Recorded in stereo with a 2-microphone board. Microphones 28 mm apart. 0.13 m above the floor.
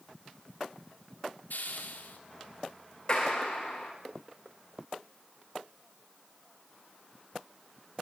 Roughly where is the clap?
Left.